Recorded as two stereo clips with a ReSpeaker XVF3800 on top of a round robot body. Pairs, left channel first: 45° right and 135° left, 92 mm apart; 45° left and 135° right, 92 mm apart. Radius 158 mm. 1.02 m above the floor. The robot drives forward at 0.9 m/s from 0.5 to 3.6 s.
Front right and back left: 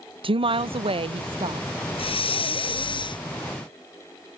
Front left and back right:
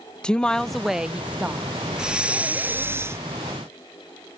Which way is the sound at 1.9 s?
55° right.